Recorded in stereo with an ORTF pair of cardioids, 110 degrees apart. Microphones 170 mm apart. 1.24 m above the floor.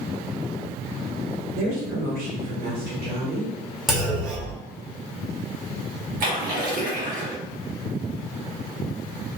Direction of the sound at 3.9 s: Straight ahead.